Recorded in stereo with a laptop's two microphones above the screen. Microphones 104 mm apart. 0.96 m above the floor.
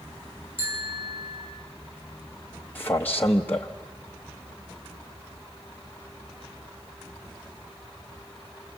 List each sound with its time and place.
0.6 s a bicycle bell: 25° right (ahead or behind), 9.5 m
2.8 s a man speaking: 20° left (ahead or behind), 0.8 m